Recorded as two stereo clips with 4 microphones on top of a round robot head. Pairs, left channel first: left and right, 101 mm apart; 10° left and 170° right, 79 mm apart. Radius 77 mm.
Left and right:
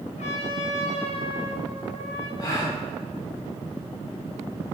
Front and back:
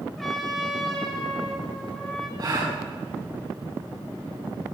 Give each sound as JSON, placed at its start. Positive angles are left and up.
{"t": 0.2, "sound": "a trumpet", "azimuth_deg": 95, "distance_m": 5.0}
{"t": 2.4, "sound": "a gasp", "azimuth_deg": 150, "distance_m": 5.5}